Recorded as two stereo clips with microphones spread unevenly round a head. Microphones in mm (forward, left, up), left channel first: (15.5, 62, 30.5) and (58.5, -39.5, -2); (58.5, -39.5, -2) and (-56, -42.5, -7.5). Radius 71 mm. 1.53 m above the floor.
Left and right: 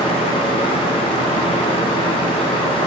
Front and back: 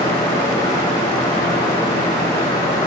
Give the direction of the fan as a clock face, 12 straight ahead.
10 o'clock.